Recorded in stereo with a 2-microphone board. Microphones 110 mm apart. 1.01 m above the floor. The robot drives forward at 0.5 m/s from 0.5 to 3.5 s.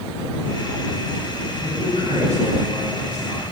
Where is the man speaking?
85° left, 5.5 m; by 3.4 s 75° left (ahead or behind), 6 m.